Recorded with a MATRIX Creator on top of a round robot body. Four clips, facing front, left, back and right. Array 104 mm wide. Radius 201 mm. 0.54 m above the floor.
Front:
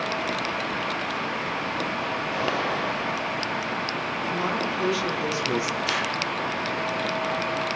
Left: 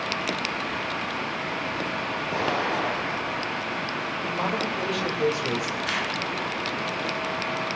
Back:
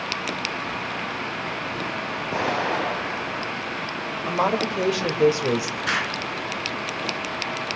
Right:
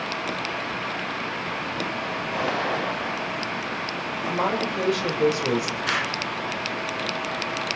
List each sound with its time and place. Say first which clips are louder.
2.3 s an explosion: even, back 4 dB; 150° left, 9 m
4.3 s a woman speaking: right 4 dB, back 6 dB; 160° right, 3.5 m
5.9 s an explosion: right 2 dB, back 1 dB; 155° right, 3.5 m